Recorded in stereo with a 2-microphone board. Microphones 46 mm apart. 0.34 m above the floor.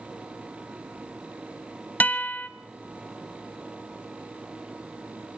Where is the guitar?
45° left (ahead or behind), 1.0 m.